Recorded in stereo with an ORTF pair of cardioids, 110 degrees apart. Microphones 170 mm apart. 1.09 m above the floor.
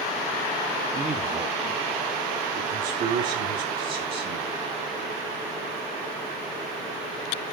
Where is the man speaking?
20° right, 1.9 m; by 4.6 s 70° right, 5 m.